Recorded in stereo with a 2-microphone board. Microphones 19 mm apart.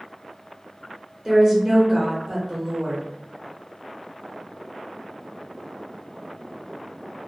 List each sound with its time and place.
1.2 s a woman speaking: 25° right (ahead or behind), 1.1 m